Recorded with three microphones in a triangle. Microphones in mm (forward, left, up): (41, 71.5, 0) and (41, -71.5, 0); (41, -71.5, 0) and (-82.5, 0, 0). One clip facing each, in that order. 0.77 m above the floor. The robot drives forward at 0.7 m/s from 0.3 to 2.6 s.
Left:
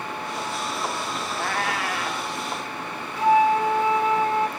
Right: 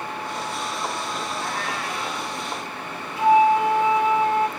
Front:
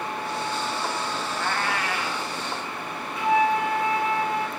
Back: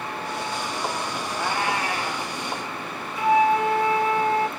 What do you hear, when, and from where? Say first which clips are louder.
1.4 s a cat meowing: left 2 dB, back 3 dB; 65° left, 0.8 m; by 2.3 s 115° left, 0.8 m
3.2 s a flute: right 2 dB, back 3 dB; 160° right, 2 m